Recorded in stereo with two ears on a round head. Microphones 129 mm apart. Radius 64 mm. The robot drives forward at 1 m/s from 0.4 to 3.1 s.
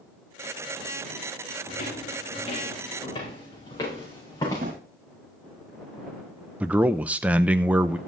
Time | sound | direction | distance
1.7 | footsteps | 50° left (ahead or behind) | 5.5 m
4.6 | a drawer | 70° right (ahead or behind) | 2 m
6.6 | a man speaking | 10° right (ahead or behind) | 0.5 m